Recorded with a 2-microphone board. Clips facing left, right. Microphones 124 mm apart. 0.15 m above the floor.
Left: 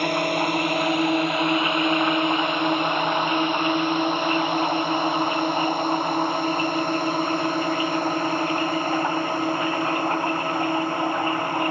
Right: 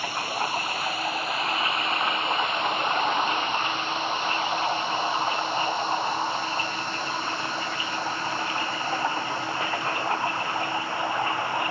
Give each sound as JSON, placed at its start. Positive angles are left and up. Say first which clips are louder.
{"t": 0.0, "sound": "a drone", "louder": "left 7 dB", "side_deg": 65}